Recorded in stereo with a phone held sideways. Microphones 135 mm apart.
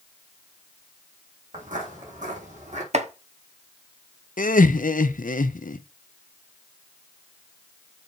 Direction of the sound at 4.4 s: 85° left.